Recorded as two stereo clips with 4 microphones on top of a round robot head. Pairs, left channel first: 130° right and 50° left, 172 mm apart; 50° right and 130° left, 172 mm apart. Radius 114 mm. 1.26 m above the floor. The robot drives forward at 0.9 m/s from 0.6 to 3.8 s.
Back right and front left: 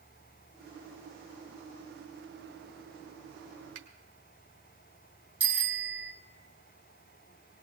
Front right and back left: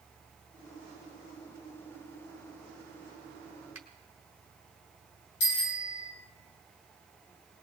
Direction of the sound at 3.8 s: 45° left.